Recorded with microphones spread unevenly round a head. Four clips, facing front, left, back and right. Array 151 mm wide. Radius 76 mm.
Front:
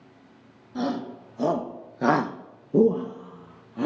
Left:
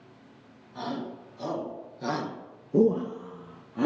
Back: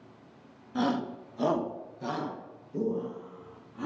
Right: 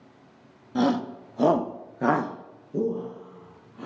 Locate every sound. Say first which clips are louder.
0.8 s a shout: right 10 dB, even; 85° right, 1.9 m; by 3.9 s 45° left, 2 m